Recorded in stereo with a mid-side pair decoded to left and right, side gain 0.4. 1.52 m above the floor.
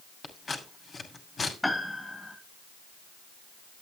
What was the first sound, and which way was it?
Scissors, 45° left.